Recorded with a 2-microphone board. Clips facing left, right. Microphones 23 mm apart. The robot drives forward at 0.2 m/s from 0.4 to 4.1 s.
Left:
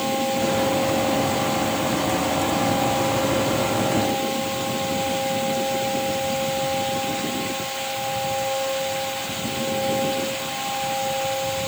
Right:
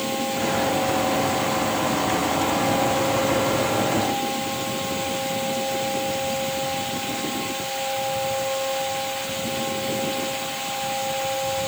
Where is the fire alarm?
No fire alarm in this recording.